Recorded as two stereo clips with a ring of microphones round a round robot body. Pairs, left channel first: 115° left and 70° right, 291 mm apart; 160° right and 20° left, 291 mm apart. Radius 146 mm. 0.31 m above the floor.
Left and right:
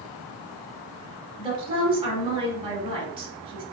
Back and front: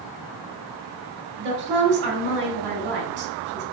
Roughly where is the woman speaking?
Ahead.